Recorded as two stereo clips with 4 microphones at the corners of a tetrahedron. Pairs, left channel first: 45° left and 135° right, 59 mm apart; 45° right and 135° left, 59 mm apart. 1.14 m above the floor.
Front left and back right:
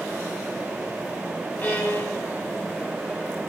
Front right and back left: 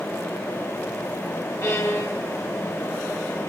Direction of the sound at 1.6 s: 15° right.